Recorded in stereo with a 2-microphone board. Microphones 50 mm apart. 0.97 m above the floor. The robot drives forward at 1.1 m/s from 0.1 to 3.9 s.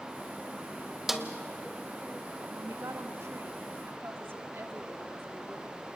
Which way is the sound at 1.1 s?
5° right (ahead or behind).